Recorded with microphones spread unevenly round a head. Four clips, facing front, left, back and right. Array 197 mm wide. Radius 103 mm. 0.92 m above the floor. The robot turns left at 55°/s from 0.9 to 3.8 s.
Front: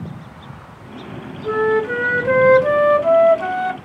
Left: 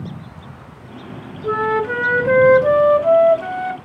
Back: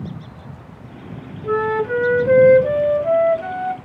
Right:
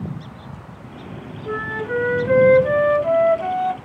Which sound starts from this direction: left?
A flute, at 1.4 s.